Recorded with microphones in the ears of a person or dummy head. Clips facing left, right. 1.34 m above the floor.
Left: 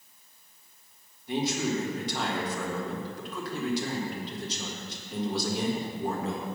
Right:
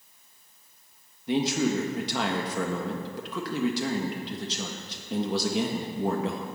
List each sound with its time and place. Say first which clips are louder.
1.3 s a man speaking: right 4 dB; 55° right (ahead or behind), 1.5 m